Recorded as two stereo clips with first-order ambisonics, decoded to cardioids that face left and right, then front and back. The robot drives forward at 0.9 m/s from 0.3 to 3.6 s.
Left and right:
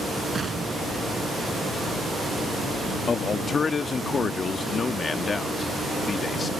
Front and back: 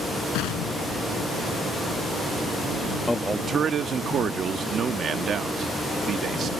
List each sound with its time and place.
0.3 s an explosion: 15° right; by 1.7 s 20° right
3.1 s a man speaking: 60° left; by 6.5 s 145° left